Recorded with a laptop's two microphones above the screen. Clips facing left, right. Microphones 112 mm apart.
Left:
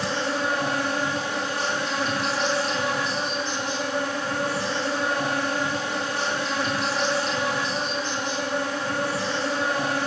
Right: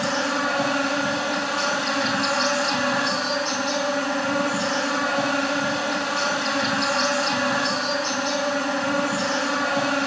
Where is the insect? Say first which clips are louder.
Right 2 dB; 70° right (ahead or behind), 3 m.